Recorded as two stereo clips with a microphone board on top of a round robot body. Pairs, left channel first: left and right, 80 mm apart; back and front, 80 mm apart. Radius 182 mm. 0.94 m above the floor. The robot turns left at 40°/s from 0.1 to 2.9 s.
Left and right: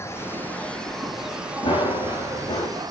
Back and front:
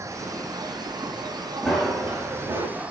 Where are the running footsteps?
95° left, 5 m; by 2.7 s 60° left, 5 m.